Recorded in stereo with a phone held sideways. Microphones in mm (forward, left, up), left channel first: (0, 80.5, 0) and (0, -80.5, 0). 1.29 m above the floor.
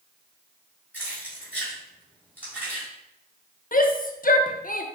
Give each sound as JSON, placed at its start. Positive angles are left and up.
{"t": 0.9, "sound": "keys jangling", "side_deg": -10, "distance_m": 2.0}
{"t": 3.7, "sound": "a shout", "side_deg": 60, "distance_m": 0.6}